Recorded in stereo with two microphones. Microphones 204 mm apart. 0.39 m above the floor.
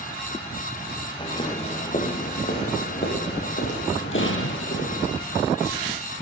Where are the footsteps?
20° left (ahead or behind), 3.5 m; by 5.1 s 65° left (ahead or behind), 7.5 m.